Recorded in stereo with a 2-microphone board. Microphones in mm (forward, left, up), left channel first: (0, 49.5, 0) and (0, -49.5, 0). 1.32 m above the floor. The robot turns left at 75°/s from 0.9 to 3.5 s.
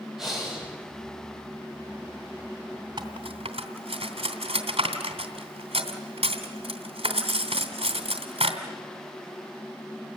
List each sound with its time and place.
0.2 s breathing: centre (ahead or behind), 8 m
3.0 s cutlery clinking: 45° right (ahead or behind), 3 m; by 8.6 s 80° right, 3 m